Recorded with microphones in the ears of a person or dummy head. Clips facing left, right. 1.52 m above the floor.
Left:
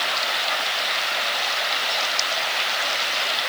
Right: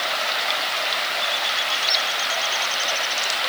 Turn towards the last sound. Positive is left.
No sound to turn to.